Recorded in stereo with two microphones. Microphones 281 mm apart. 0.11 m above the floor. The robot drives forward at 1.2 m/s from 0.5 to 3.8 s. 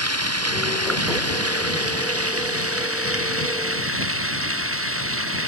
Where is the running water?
60° right (ahead or behind); by 5.5 s 50° right (ahead or behind).